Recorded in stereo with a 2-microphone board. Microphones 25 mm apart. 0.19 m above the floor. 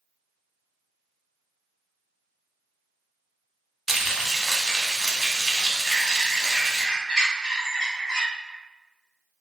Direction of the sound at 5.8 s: 20° left (ahead or behind).